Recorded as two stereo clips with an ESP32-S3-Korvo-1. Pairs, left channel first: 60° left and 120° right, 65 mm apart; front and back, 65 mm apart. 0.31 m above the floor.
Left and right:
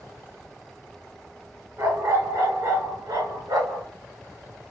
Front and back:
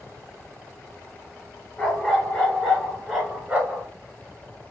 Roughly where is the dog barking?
Right.